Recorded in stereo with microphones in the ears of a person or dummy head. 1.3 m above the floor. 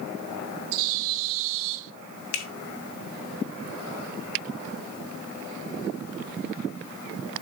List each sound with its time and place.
0.7 s a bird: 75° right (ahead or behind), 1.0 m
2.3 s a finger snap: 75° left (ahead or behind), 1.3 m